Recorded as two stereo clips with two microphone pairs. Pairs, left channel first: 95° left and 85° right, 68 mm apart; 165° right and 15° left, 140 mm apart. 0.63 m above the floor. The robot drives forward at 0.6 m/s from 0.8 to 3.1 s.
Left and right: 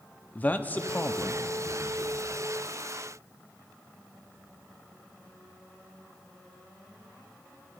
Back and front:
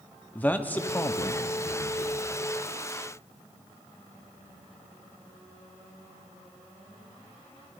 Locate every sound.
0.3 s a man speaking: 130° left, 0.6 m; by 2.1 s 165° left, 1.2 m